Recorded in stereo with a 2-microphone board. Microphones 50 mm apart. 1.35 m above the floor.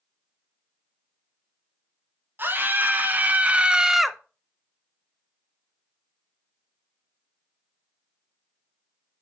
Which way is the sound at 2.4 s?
45° right (ahead or behind).